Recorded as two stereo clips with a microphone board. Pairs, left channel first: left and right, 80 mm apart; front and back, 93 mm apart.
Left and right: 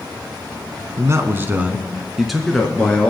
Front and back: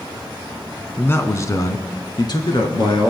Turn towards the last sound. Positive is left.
turn(degrees=15)